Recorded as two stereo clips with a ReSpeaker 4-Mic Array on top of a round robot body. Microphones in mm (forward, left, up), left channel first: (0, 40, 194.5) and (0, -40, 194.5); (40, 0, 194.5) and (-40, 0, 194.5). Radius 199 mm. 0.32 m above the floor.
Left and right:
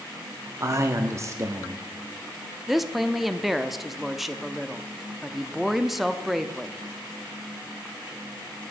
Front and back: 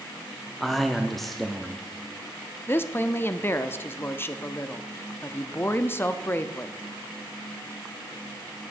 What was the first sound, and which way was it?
A man speaking, 85° right.